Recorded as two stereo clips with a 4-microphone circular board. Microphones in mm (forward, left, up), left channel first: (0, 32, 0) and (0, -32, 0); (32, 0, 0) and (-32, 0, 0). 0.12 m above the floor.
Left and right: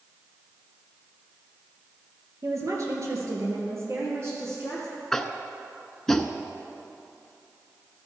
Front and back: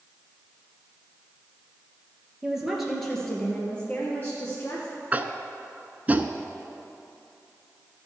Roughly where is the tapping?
Behind.